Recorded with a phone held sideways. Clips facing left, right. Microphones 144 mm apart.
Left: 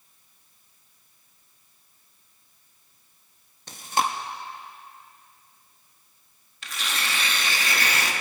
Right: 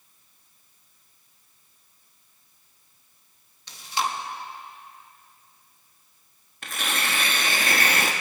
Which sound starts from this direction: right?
Tearing paper, at 6.6 s.